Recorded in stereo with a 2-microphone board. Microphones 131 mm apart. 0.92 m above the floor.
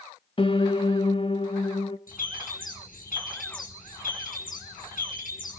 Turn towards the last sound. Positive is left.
turn(degrees=80)